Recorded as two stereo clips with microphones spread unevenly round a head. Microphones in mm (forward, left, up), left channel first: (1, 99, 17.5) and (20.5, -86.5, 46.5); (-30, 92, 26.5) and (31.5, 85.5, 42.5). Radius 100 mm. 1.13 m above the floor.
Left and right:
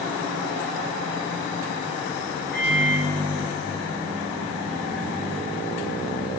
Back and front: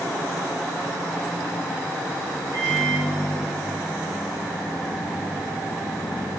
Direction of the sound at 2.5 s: 45° right.